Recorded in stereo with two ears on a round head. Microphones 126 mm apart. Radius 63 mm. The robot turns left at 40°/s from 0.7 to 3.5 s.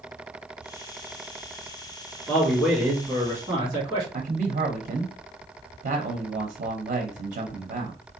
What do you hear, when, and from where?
2.3 s a man speaking: 15° left, 1.9 m; by 4.0 s 35° right, 1.9 m
4.1 s a man speaking: 60° right (ahead or behind), 1.0 m